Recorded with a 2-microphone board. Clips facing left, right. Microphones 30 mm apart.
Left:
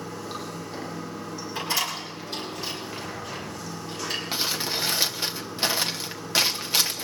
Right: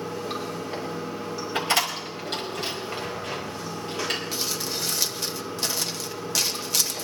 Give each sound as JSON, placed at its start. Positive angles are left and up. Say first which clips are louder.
{"t": 0.0, "sound": "running water", "louder": "right 4 dB", "side_deg": -80, "distance_m": 8.0}
{"t": 1.6, "sound": "a door slam", "louder": "right 4 dB", "side_deg": -70, "distance_m": 4.5}
{"t": 4.3, "sound": "crumpling", "louder": "left 2 dB", "side_deg": 30, "distance_m": 1.3}